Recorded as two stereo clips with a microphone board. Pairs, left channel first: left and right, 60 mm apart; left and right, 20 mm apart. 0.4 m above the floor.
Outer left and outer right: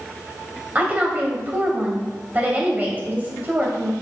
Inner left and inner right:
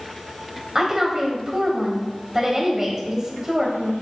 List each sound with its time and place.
0.8 s a woman speaking: 25° right (ahead or behind), 2 m